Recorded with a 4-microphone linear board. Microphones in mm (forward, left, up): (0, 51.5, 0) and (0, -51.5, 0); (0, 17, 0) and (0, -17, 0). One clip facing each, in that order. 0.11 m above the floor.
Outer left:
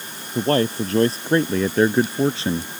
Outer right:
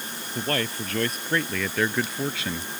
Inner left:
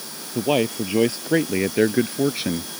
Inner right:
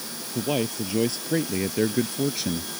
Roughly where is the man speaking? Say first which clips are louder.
Outer left 9 dB, inner left 5 dB; left.